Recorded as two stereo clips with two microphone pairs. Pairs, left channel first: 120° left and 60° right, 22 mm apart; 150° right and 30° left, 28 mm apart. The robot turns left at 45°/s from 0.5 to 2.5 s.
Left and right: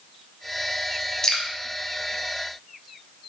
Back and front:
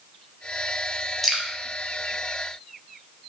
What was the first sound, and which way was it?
Dripping, 130° left.